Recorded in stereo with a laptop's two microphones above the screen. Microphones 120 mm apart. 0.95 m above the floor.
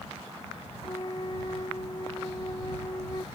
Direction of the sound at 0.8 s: 40° left (ahead or behind).